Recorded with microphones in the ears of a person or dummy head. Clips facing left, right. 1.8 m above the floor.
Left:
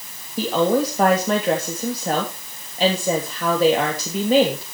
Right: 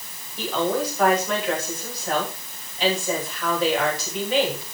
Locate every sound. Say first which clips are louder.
0.4 s a woman speaking: left 5 dB; 40° left (ahead or behind), 3 m